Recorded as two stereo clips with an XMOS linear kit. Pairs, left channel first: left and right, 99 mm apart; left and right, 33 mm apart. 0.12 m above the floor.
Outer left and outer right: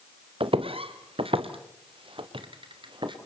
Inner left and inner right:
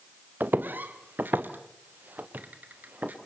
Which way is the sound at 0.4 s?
80° right.